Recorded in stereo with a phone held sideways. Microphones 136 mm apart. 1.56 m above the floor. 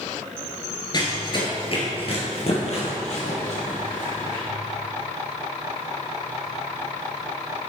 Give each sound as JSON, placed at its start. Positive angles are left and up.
{"t": 0.9, "sound": "running footsteps", "side_deg": 30, "distance_m": 1.7}